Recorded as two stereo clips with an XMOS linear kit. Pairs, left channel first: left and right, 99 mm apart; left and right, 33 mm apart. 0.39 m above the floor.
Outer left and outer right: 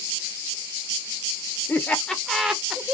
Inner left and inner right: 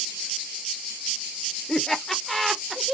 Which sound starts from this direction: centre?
Laughter, at 1.7 s.